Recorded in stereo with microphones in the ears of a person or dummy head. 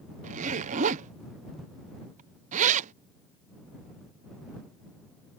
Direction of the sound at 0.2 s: 40° right (ahead or behind).